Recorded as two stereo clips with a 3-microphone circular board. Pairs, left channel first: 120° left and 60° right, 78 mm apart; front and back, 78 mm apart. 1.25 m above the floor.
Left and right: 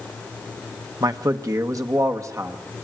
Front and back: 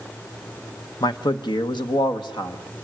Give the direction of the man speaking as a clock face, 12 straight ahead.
1 o'clock.